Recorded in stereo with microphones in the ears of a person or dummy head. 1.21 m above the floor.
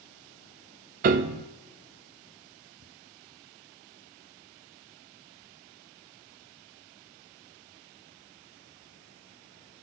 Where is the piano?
45° right (ahead or behind), 0.7 m.